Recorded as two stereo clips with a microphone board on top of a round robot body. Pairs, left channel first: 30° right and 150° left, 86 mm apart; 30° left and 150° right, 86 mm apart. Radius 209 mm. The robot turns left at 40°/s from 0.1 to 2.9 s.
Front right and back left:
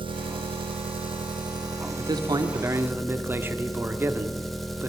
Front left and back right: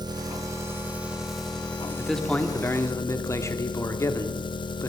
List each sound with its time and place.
0.0 s an engine running: 170° left, 1.2 m; by 4.9 s 60° left, 1.2 m
2.0 s a man speaking: 120° left, 2.5 m; by 4.9 s 85° left, 2.5 m